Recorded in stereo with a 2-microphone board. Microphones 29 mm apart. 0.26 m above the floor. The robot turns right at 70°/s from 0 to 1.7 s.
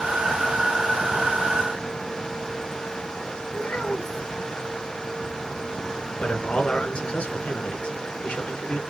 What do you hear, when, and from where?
3.5 s a child speaking: 75° left (ahead or behind), 3 m
6.2 s a man speaking: 55° left (ahead or behind), 3 m